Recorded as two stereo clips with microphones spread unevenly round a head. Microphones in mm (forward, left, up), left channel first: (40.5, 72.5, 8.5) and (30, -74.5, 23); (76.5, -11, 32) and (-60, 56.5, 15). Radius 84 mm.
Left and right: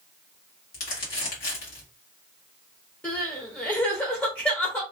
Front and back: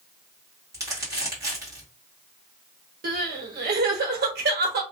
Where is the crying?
165° left, 0.9 m.